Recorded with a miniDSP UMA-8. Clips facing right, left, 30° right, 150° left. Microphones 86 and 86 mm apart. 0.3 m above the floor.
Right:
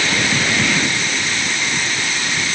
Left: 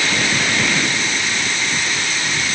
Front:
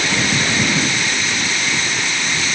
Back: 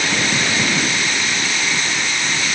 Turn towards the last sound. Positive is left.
No sound to turn to.